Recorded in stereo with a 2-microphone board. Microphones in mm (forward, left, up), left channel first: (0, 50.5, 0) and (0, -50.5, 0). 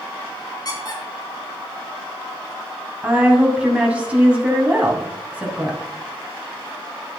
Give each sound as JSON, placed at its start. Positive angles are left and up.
{"t": 0.7, "sound": "a squeak", "side_deg": 40, "distance_m": 2.5}
{"t": 3.0, "sound": "a woman speaking", "side_deg": -15, "distance_m": 2.5}